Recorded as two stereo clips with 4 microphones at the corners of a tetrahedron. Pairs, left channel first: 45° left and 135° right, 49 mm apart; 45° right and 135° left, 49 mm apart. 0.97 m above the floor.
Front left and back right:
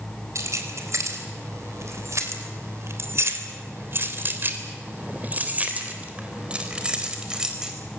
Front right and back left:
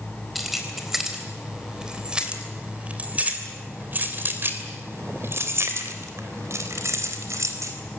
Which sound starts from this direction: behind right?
Keys jangling, at 0.3 s.